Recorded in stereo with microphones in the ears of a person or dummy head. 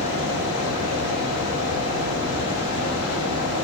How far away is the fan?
About 1.2 m.